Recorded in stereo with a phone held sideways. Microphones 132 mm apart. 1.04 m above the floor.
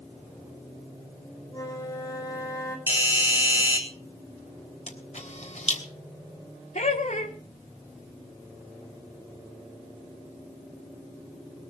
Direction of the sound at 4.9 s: 60° left (ahead or behind).